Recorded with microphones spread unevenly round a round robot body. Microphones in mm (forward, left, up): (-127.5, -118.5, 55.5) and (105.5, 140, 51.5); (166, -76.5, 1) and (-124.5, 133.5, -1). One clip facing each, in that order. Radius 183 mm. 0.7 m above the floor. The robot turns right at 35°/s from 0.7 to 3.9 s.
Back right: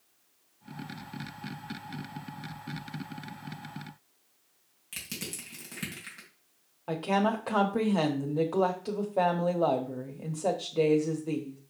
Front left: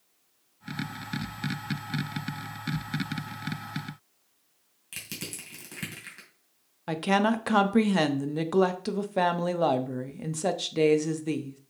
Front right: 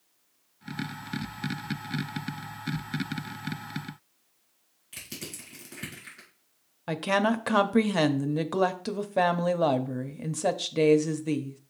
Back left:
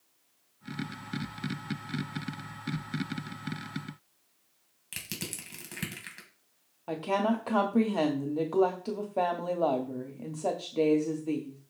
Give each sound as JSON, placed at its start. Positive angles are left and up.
{"t": 4.9, "sound": "crushing", "azimuth_deg": 130, "distance_m": 2.5}
{"t": 6.9, "sound": "a woman speaking", "azimuth_deg": 5, "distance_m": 0.8}